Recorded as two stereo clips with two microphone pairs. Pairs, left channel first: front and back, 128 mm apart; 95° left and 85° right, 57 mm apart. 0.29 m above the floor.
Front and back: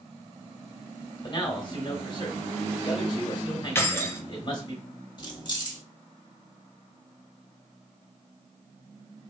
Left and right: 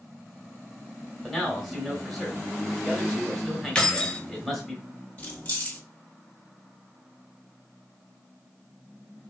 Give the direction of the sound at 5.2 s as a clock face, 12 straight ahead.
11 o'clock.